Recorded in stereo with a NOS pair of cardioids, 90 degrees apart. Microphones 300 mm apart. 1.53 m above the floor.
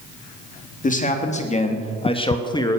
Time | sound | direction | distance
0.8 | a man speaking | 30° left | 3 m